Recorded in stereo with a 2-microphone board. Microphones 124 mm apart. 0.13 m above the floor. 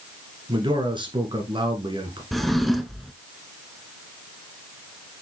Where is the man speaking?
40° right (ahead or behind), 2 m.